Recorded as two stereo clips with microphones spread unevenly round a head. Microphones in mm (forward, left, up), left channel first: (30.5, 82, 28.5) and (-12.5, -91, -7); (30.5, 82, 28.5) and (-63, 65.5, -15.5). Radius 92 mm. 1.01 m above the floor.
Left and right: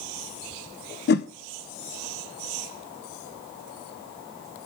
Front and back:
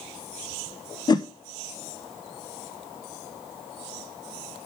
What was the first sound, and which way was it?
A whoosh, 70° left.